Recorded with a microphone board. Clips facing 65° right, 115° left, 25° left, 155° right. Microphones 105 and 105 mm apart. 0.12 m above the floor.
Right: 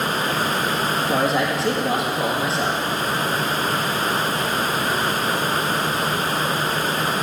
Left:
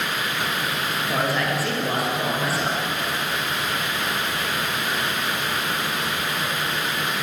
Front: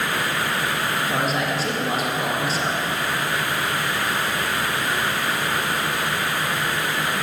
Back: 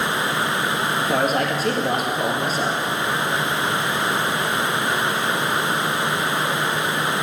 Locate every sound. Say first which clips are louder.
1.0 s a man speaking: right 3 dB, back 5 dB; 130° right, 2.5 m